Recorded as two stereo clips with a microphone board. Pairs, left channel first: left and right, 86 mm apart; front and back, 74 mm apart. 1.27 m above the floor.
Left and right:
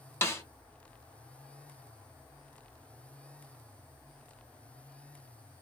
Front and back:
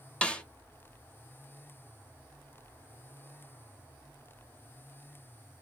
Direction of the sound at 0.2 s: 60° left.